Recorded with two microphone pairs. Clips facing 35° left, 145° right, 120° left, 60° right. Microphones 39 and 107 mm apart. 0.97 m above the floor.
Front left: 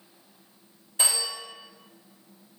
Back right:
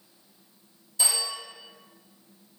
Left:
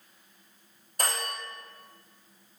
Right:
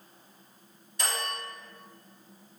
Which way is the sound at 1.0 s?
85° left.